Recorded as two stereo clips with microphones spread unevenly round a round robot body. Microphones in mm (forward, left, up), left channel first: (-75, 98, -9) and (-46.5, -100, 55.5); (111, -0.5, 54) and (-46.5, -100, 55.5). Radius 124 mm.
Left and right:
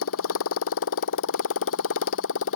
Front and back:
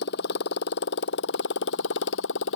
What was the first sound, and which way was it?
A motorcycle, 75° left.